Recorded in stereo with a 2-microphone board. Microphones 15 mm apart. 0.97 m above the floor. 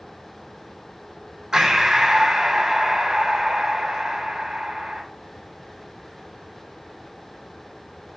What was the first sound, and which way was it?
Breathing, 45° right (ahead or behind).